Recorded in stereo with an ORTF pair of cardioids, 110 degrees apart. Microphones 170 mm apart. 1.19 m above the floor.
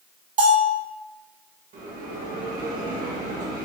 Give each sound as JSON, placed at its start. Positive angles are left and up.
{"t": 0.4, "sound": "a bell", "azimuth_deg": -45, "distance_m": 1.5}
{"t": 1.7, "sound": "a bell", "azimuth_deg": -55, "distance_m": 1.5}